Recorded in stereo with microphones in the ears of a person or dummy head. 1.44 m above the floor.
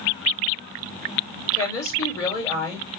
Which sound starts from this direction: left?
A woman speaking, at 1.5 s.